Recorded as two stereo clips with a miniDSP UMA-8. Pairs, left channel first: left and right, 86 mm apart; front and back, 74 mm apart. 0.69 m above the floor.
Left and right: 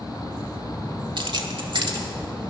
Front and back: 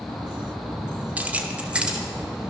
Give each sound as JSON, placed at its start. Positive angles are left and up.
{"t": 1.2, "sound": "keys jangling", "azimuth_deg": -110, "distance_m": 1.1}